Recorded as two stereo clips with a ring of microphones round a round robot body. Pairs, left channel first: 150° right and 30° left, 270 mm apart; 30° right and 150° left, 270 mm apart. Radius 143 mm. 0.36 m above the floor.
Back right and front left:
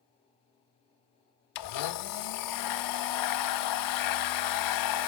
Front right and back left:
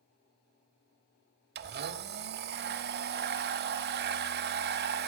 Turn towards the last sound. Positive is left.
turn(degrees=-155)